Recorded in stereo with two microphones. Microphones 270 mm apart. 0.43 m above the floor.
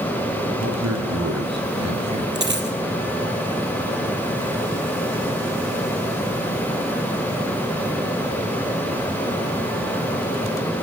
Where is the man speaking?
75° right (ahead or behind), 5 m; by 2.2 s 80° right, 7.5 m.